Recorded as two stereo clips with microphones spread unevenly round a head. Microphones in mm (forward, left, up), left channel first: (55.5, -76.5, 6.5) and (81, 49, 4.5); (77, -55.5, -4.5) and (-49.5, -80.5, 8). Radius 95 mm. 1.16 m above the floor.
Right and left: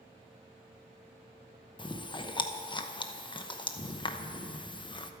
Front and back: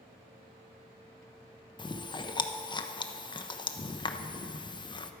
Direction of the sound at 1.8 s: 45° right.